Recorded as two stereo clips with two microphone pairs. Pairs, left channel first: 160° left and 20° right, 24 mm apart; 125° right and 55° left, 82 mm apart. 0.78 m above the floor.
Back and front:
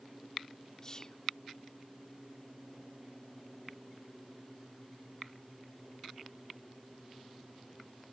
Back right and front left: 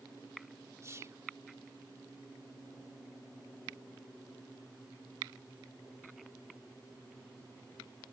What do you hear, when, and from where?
0.8 s whispering: 100° left